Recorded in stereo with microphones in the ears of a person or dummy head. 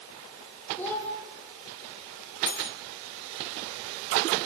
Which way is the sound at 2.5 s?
50° left (ahead or behind).